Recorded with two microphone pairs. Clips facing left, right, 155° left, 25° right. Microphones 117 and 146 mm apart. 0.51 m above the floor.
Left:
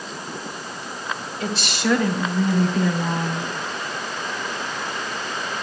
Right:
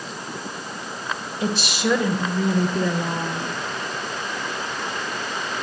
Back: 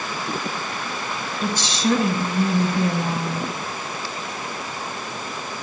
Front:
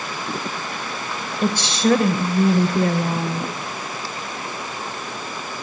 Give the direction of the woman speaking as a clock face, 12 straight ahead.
1 o'clock.